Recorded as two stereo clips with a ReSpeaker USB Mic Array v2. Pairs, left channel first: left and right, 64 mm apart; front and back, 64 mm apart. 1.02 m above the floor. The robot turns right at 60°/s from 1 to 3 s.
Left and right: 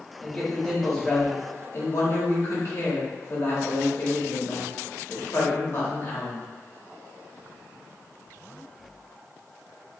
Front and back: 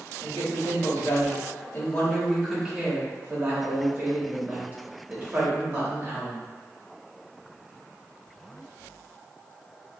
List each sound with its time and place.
0.2 s a man speaking: straight ahead, 1.5 m; by 6.4 s 120° left, 1.5 m